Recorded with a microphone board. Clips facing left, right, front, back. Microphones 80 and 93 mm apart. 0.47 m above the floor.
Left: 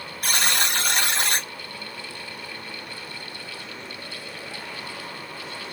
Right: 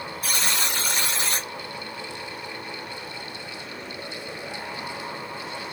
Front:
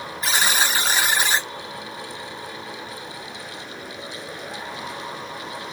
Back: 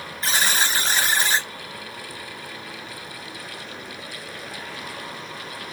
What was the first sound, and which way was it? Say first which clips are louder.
A buzzer: left 4 dB, front 1 dB; 75° left.